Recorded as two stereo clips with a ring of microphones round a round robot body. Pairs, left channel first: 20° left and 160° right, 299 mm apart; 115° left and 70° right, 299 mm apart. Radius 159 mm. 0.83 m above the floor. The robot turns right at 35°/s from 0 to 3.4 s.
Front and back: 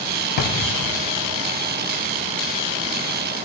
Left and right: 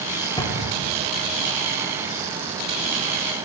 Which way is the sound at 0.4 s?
35° left.